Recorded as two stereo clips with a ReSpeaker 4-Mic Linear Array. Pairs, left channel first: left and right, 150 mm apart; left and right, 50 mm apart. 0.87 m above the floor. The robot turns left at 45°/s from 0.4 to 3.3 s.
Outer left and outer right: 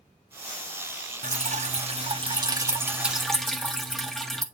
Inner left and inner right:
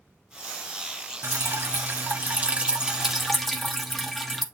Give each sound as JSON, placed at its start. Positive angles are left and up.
{"t": 1.2, "sound": "dripping", "azimuth_deg": -90, "distance_m": 1.0}